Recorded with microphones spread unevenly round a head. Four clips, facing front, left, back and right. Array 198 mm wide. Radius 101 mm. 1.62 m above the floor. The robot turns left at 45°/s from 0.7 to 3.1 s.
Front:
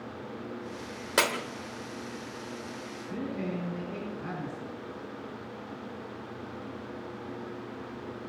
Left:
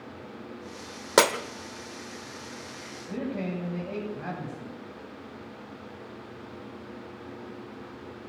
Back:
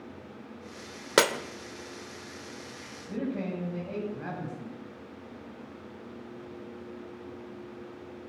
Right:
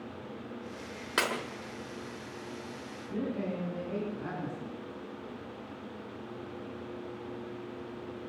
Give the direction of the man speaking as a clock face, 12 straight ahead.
8 o'clock.